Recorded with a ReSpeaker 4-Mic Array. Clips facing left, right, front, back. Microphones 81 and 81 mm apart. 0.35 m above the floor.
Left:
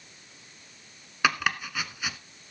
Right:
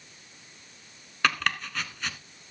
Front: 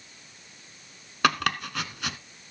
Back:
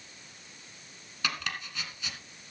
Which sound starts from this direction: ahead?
Chopping, at 1.2 s.